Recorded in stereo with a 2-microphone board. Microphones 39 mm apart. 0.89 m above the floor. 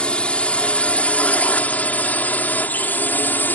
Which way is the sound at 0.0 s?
30° left (ahead or behind).